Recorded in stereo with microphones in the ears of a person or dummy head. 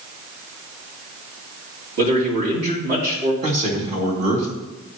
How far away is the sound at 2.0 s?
About 3 m.